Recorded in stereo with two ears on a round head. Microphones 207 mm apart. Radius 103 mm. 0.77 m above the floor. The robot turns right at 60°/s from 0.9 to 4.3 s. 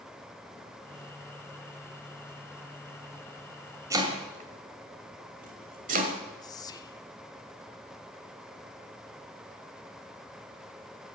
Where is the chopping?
15° right (ahead or behind), 1.6 m; by 6.1 s 40° right (ahead or behind), 1.6 m.